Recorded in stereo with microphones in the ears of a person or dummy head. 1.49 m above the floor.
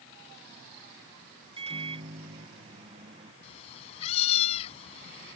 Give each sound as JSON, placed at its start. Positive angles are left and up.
{"t": 1.6, "sound": "a microwave", "side_deg": -35}
{"t": 3.4, "sound": "a cat meowing", "side_deg": 35}